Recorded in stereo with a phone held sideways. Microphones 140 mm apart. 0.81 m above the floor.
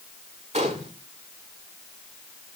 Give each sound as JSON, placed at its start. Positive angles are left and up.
{"t": 0.5, "sound": "a gunshot", "side_deg": -55, "distance_m": 1.6}